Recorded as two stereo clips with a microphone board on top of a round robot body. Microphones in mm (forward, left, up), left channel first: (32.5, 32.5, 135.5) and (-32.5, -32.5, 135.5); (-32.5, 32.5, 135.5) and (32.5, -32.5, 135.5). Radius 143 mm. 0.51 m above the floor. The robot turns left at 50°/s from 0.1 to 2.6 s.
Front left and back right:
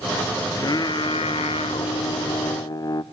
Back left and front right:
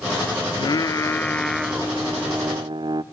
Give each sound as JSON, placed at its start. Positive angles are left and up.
{"t": 0.5, "sound": "singing", "azimuth_deg": 100, "distance_m": 0.6}